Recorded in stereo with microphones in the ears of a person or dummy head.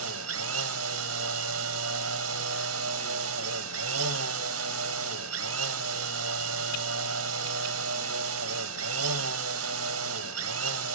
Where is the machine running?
70° right (ahead or behind), 0.8 m.